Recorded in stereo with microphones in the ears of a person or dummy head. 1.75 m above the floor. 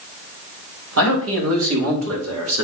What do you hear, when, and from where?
1.0 s a man speaking: 85° right, 3.5 m